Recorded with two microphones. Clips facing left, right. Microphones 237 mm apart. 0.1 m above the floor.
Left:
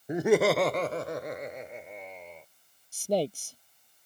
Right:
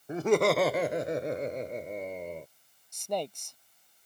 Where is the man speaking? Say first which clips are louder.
Left 6 dB; 35° left (ahead or behind).